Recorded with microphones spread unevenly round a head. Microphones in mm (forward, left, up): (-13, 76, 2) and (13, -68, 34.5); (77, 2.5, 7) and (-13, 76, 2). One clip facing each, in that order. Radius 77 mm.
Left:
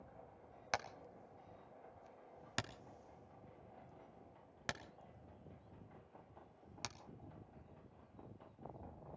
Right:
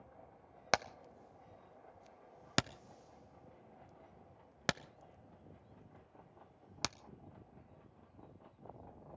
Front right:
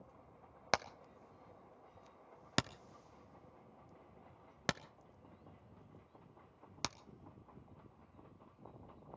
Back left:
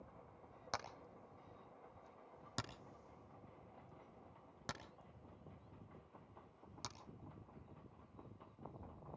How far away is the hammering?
About 0.6 m.